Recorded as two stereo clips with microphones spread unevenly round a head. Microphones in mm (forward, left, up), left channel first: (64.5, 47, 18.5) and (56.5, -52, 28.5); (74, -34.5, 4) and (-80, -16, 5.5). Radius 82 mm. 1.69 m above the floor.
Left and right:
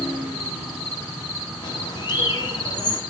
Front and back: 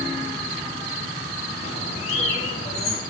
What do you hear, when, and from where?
1.6 s a bird: 45° left, 3 m